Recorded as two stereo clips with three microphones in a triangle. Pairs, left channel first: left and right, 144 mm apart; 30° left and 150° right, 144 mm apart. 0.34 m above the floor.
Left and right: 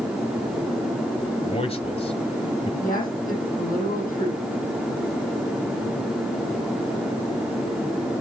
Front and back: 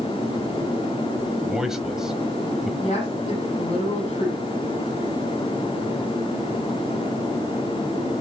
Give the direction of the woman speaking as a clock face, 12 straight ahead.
9 o'clock.